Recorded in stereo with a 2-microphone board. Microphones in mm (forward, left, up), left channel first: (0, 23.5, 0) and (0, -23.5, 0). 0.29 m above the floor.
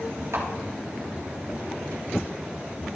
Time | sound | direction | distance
0.3 | a camera shutter | 80° right | 4 m